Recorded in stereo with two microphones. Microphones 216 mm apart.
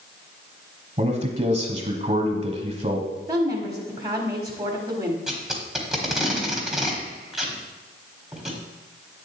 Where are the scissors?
No scissors in this recording.